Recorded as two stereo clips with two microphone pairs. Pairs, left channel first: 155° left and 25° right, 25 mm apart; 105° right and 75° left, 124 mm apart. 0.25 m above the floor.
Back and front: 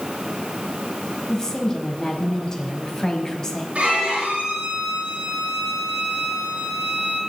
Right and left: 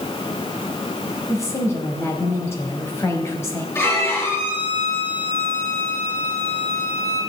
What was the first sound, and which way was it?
A woman speaking, 155° right.